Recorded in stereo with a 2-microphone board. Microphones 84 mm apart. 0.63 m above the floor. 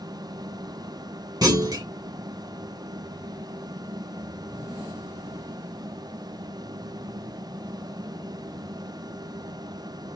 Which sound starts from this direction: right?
A clunk, at 1.4 s.